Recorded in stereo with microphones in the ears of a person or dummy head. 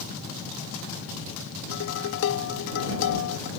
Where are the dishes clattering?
70° left (ahead or behind).